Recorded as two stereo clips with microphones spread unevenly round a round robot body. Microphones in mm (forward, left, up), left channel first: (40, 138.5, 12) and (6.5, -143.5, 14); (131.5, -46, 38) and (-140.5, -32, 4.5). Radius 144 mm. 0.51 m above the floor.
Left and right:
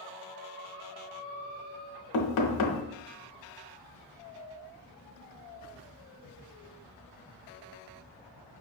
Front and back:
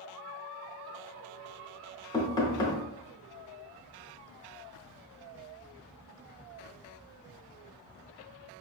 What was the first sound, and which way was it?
Knocking, 75° left.